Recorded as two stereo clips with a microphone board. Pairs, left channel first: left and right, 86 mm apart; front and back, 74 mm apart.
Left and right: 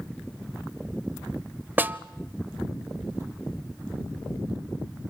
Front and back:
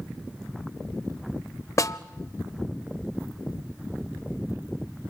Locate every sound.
1.8 s a snare drum: 30° right, 0.6 m